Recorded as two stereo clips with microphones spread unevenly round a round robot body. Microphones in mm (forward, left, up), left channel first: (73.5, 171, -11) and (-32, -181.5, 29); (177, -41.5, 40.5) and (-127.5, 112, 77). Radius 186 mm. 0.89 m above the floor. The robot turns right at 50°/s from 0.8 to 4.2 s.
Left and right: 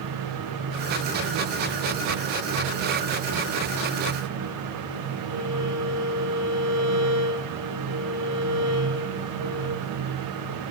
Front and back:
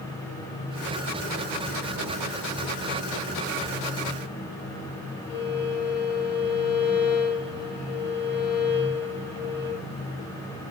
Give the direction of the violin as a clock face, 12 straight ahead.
2 o'clock.